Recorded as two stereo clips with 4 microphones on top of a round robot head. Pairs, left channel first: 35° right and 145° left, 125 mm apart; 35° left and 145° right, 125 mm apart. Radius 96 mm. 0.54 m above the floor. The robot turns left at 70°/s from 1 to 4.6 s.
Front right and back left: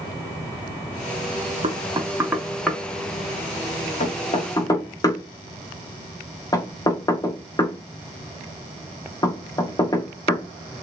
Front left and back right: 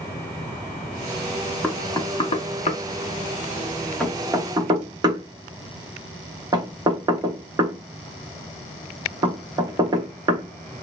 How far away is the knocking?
About 0.9 m.